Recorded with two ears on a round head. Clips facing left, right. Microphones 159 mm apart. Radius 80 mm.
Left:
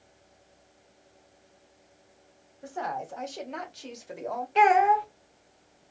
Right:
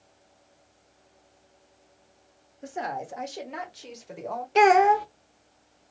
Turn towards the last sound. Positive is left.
turn(degrees=-50)  # may be behind; listen again after turning